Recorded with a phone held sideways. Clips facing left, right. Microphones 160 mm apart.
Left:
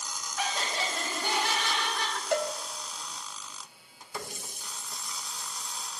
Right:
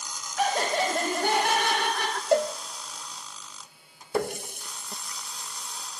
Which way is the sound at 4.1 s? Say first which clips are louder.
Right 12 dB; 65° right (ahead or behind).